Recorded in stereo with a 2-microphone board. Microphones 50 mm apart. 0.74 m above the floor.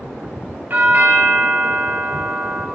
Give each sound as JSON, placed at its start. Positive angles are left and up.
{"t": 0.7, "sound": "a doorbell", "side_deg": -45, "distance_m": 1.3}